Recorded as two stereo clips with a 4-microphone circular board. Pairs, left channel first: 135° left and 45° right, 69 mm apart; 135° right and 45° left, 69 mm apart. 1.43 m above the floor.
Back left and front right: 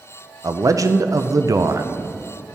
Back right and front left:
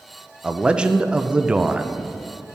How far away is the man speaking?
About 0.5 m.